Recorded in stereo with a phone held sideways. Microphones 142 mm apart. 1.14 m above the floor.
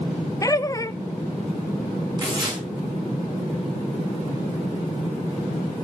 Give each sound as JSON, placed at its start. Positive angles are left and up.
{"t": 0.4, "sound": "laughter", "side_deg": 25, "distance_m": 0.5}
{"t": 2.2, "sound": "tearing paper", "side_deg": -30, "distance_m": 5.5}